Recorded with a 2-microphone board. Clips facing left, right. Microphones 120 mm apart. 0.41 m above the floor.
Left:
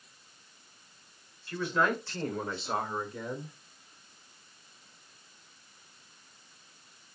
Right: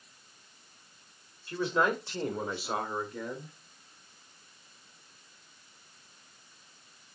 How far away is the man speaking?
About 2 m.